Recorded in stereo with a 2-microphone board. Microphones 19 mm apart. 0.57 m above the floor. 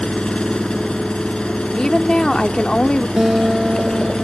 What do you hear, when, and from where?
0.0 s an engine running: 70° left (ahead or behind)
1.8 s a woman speaking: 50° left (ahead or behind)
3.2 s a guitar: 40° right (ahead or behind)